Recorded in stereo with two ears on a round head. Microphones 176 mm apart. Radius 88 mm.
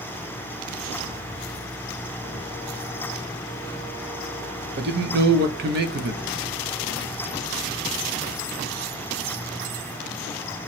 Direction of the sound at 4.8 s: 55° right (ahead or behind).